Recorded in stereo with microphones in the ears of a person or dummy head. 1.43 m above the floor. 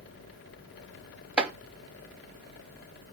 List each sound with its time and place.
1.4 s chopping: 10° right (ahead or behind), 0.8 m